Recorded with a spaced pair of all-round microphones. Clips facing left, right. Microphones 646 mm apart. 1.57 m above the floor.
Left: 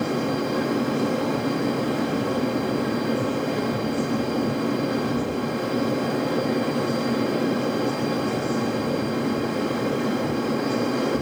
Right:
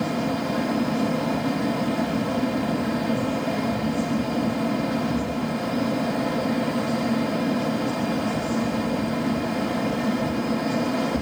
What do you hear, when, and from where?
0.0 s a fan: 25° right (ahead or behind), 1.4 m